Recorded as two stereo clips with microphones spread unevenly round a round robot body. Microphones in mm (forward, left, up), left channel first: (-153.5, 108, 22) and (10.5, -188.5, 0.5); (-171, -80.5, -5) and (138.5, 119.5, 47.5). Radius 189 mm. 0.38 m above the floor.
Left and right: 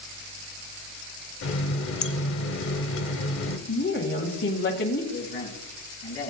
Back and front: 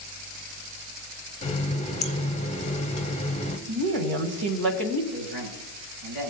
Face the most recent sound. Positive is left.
turn(degrees=50)